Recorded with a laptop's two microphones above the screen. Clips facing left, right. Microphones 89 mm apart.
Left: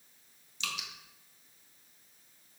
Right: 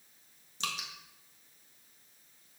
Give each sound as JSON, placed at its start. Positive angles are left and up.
{"t": 0.6, "sound": "dripping", "side_deg": -40, "distance_m": 1.7}